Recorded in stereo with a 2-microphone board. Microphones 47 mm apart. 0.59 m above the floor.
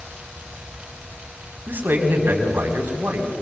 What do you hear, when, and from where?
1.7 s a man speaking: 50° right (ahead or behind), 4.5 m